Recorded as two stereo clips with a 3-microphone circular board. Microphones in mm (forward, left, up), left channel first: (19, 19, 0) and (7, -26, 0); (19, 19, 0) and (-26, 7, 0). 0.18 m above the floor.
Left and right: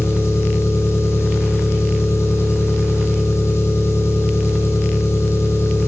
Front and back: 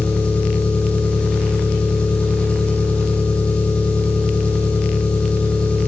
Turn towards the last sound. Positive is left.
turn(degrees=80)